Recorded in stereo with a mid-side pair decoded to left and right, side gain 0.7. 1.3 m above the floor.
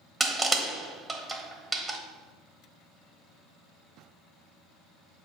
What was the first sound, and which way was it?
Crushing, 5° right.